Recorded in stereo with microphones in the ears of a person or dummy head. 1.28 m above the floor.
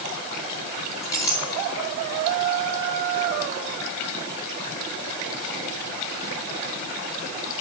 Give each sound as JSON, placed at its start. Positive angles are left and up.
{"t": 1.0, "sound": "a clink", "side_deg": 15, "distance_m": 2.0}